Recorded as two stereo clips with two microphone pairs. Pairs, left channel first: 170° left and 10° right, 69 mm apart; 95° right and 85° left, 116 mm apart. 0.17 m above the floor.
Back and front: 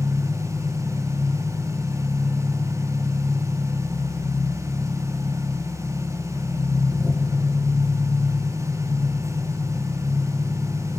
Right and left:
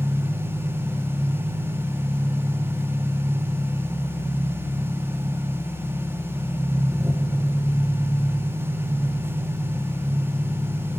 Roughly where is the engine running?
Behind left.